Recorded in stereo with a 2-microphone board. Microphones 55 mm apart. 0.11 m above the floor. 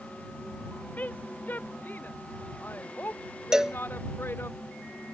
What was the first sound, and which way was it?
A woman speaking, 30° left (ahead or behind).